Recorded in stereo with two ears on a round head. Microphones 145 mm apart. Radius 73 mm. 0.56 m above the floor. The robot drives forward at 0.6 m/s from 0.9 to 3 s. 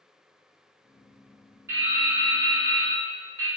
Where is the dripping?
15° right (ahead or behind), 0.9 m; by 3.5 s 20° right (ahead or behind), 0.7 m.